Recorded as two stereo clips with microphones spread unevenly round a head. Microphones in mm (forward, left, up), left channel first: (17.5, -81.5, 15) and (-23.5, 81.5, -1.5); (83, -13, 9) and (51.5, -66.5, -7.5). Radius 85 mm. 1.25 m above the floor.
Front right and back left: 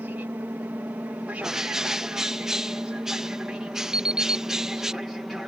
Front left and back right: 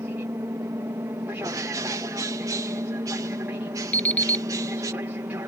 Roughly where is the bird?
Behind.